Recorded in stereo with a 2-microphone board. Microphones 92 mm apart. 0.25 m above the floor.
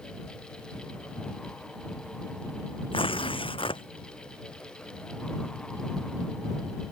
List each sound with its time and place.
2.9 s tearing paper: 75° left (ahead or behind)